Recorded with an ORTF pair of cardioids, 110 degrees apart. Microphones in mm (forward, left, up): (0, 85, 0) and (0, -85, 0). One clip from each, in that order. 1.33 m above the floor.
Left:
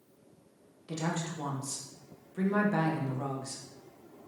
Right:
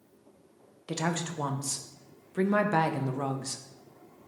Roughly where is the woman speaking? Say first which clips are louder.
Right 3 dB; ahead right.